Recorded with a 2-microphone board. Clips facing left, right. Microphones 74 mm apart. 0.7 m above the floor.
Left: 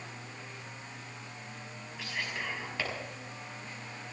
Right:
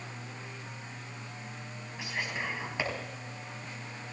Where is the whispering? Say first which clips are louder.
Right 2 dB; 15° right (ahead or behind), 6 m.